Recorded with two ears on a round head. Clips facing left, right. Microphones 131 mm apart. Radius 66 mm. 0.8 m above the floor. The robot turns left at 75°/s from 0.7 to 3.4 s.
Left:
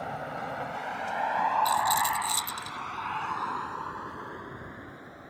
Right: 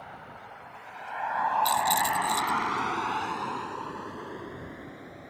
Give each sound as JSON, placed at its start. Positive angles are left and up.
{"t": 0.0, "sound": "a vehicle", "side_deg": 65}
{"t": 1.6, "sound": "a rattle", "azimuth_deg": -150}